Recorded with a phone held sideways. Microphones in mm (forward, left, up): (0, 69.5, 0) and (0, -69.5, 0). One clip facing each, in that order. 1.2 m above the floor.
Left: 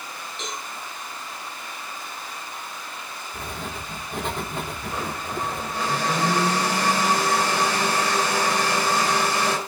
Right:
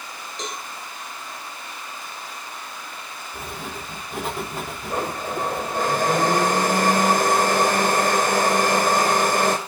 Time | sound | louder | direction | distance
0.4 | a cowbell | right 2 dB | 40° right (ahead or behind) | 6.5 m
3.3 | writing | even | 5° right (ahead or behind) | 3.5 m
4.9 | a blender | right 5 dB | 50° right (ahead or behind) | 3 m